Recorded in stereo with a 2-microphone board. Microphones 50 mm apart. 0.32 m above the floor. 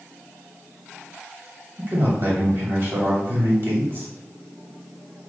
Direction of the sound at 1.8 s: 45° right (ahead or behind).